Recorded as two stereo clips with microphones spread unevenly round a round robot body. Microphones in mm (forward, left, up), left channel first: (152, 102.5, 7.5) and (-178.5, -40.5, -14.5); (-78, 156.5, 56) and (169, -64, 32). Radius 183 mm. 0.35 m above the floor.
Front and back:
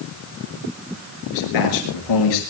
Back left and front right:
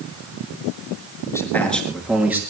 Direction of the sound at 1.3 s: 55° left.